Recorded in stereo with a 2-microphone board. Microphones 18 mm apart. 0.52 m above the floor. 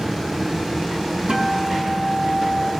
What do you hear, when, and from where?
1.3 s a guitar: 75° right (ahead or behind), 4.5 m